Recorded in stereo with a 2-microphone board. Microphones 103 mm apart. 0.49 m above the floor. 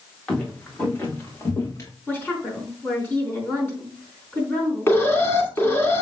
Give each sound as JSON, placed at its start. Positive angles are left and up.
{"t": 0.3, "sound": "footsteps", "side_deg": 10, "distance_m": 3.0}
{"t": 2.1, "sound": "a woman speaking", "side_deg": 15, "distance_m": 4.5}
{"t": 4.9, "sound": "an alarm", "side_deg": 25, "distance_m": 1.8}